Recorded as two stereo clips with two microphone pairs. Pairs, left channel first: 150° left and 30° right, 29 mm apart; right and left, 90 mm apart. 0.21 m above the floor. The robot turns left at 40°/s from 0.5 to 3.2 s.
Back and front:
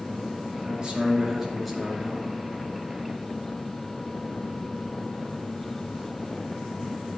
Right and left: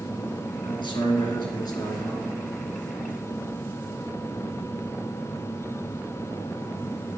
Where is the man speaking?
75° right, 3.5 m; by 2.3 s 145° right, 3.5 m.